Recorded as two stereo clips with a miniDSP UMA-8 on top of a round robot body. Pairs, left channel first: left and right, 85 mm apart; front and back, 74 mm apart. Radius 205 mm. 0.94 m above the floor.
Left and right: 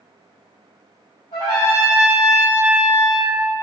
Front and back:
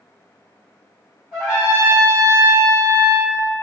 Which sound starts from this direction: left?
A trumpet, at 1.3 s.